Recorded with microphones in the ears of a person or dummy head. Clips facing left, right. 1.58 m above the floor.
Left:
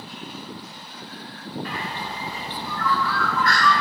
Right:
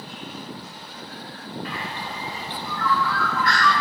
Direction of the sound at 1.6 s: 40° left (ahead or behind).